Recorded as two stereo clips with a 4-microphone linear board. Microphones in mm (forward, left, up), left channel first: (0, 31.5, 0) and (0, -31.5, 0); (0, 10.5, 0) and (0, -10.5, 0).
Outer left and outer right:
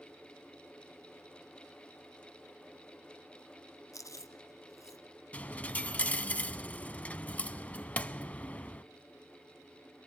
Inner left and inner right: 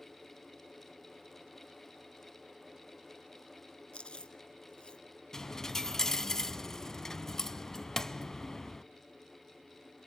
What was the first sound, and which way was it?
Chewing, 60° left (ahead or behind).